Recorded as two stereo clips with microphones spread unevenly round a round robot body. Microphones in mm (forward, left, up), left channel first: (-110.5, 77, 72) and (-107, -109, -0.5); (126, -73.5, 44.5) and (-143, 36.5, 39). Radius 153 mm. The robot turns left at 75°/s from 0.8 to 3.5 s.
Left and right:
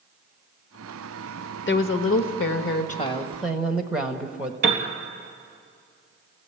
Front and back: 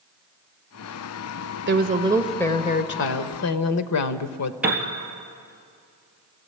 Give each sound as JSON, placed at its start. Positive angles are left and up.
{"t": 1.7, "sound": "a woman speaking", "azimuth_deg": 115, "distance_m": 1.3}
{"t": 4.6, "sound": "a piano", "azimuth_deg": -115, "distance_m": 3.5}